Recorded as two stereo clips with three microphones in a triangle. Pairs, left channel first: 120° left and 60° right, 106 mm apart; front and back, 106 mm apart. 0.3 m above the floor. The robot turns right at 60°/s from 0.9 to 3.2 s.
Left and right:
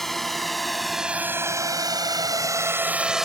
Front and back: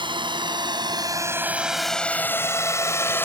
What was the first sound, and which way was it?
A drone, 155° right.